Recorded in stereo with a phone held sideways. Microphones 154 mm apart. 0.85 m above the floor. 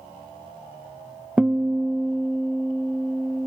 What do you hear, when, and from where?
1.4 s a guitar: 10° right (ahead or behind), 0.6 m